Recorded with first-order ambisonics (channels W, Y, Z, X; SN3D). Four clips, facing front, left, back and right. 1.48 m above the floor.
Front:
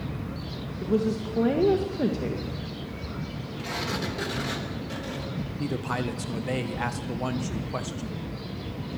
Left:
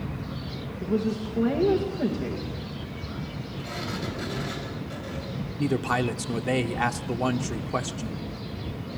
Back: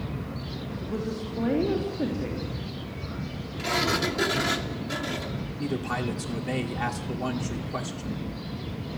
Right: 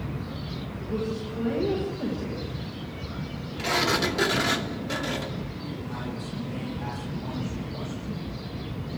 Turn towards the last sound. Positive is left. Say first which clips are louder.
# left 10 dB, even
turn(degrees=80)